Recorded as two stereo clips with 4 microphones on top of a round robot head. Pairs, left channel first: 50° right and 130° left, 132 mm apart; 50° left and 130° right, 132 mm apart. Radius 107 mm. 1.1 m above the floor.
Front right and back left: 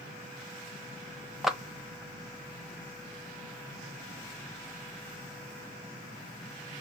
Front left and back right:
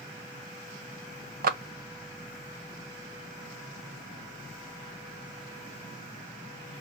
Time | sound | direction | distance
1.4 | a clap | 140° right | 0.7 m